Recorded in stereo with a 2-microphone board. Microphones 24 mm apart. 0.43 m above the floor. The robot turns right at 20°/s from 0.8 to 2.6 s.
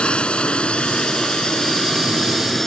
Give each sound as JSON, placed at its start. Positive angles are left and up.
{"t": 0.0, "sound": "a drone", "side_deg": 50}